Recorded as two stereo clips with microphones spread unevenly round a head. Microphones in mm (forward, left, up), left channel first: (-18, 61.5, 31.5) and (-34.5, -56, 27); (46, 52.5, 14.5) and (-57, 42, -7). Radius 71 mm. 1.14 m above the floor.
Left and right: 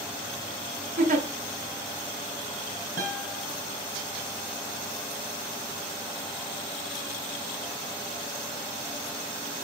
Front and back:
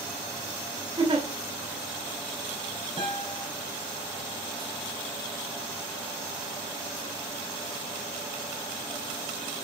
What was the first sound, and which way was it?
A giggle, 110° right.